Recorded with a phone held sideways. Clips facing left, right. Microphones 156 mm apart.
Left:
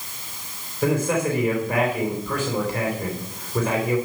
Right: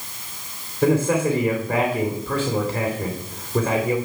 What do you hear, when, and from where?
0.8 s a man speaking: 30° right (ahead or behind), 3 m